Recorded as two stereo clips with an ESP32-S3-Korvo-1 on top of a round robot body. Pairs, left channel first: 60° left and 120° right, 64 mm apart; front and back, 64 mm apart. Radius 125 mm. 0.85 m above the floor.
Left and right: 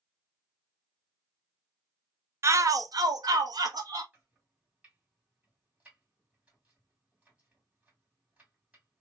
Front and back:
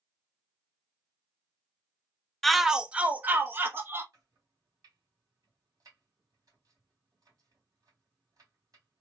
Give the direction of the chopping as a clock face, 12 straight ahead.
6 o'clock.